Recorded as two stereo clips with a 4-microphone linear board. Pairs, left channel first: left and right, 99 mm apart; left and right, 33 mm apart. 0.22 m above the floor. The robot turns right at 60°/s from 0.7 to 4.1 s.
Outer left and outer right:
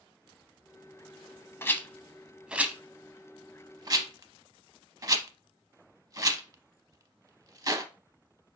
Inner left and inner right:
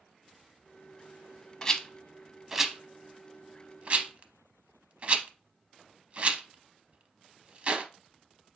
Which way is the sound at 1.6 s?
25° left (ahead or behind).